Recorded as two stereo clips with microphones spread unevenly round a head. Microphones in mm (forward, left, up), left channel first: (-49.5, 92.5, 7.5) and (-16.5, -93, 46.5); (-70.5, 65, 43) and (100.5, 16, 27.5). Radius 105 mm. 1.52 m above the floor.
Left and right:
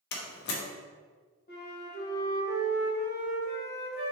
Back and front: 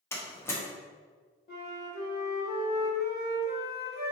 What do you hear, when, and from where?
0.1 s a door slam: 105° left, 0.6 m
1.5 s a flute: 145° left, 1.0 m